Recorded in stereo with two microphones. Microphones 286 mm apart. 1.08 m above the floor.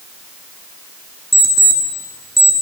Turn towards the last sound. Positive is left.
turn(degrees=0)  # may be behind; listen again after turning